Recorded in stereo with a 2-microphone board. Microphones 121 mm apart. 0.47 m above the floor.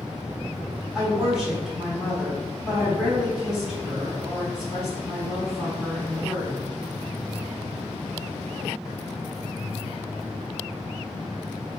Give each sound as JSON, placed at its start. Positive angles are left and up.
{"t": 0.9, "sound": "a woman speaking", "side_deg": -5, "distance_m": 1.5}